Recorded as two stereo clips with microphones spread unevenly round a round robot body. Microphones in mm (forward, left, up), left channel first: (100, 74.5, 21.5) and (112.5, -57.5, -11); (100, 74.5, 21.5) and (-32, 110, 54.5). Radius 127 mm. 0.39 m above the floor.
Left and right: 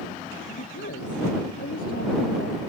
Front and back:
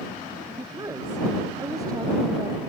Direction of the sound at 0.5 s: 100° left.